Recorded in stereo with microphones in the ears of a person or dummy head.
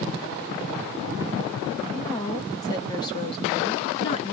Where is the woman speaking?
15° left (ahead or behind), 1.2 m; by 4.3 s 25° left (ahead or behind), 0.7 m.